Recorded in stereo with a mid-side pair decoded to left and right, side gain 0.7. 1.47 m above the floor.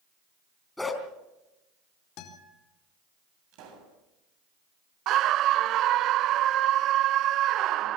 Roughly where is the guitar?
Ahead left.